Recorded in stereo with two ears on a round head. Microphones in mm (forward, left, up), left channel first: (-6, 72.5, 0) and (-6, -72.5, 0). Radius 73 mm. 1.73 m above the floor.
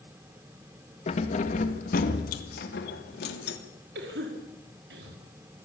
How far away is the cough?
About 5 m.